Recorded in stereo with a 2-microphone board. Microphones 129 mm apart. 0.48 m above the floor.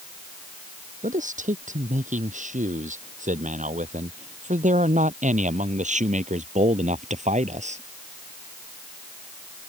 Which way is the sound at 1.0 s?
80° right.